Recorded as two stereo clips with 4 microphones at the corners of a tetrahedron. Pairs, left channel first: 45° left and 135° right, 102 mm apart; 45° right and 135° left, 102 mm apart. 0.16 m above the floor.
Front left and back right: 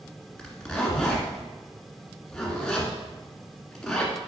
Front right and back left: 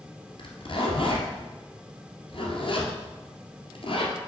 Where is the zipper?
40° right, 1.8 m.